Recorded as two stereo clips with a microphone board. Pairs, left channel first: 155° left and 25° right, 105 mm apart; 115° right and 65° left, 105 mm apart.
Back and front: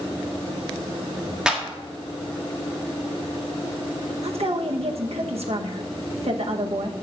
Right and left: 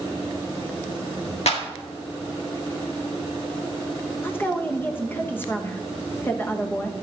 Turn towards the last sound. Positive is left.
turn(degrees=-40)